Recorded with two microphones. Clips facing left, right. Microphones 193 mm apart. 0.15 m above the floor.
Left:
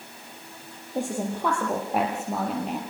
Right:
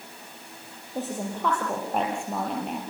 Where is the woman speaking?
15° left (ahead or behind), 4.5 m; by 2.8 s centre (ahead or behind), 4 m.